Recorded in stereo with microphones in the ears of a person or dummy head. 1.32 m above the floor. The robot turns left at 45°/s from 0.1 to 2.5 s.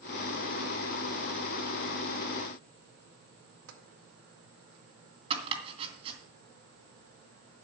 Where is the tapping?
80° right, 1.7 m.